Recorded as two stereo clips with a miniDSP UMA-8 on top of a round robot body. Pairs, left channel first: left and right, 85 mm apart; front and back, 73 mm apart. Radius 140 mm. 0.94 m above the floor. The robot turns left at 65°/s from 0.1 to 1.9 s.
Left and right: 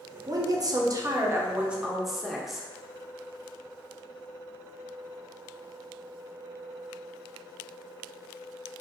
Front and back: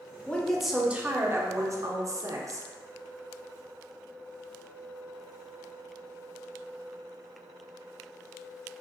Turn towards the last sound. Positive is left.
turn(degrees=-175)